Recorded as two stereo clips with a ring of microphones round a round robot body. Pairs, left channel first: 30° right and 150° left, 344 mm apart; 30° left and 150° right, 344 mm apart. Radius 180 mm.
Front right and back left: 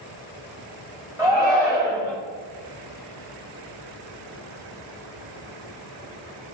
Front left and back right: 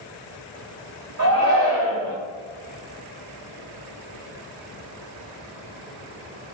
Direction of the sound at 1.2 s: 130° right.